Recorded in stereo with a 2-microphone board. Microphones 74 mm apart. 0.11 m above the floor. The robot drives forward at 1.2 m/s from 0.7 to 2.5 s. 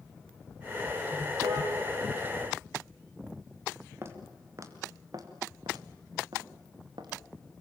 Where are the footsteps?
35° right (ahead or behind), 3 m; by 7.1 s 75° right (ahead or behind), 4 m.